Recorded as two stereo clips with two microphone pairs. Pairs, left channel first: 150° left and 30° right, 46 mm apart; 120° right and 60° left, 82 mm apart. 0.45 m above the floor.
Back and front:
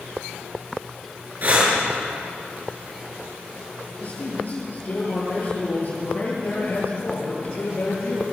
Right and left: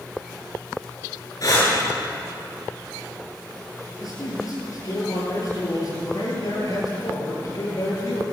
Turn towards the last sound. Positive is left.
turn(degrees=-160)